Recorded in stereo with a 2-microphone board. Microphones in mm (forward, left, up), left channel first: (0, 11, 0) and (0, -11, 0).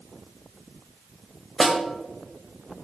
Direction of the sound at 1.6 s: 15° right (ahead or behind).